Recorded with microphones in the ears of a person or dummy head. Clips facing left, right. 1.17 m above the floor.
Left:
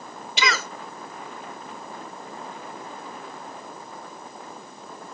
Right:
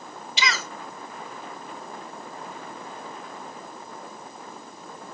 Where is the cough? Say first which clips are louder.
Left 3 dB; 40° left (ahead or behind), 1.0 m.